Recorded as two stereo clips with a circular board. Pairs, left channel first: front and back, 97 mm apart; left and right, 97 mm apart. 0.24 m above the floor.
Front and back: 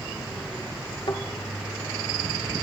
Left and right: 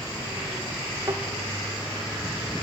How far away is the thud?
About 1.4 m.